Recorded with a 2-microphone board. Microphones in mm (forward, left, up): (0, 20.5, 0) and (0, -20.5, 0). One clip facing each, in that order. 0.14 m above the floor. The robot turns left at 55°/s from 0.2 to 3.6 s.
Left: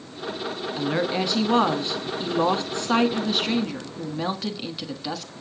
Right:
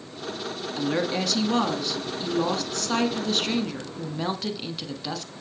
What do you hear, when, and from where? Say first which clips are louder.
0.8 s a woman speaking: left 1 dB; 5° left (ahead or behind), 1.3 m